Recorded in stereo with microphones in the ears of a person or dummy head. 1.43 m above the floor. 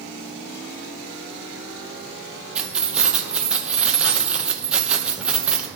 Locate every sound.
2.5 s keys jangling: 5° right (ahead or behind), 0.7 m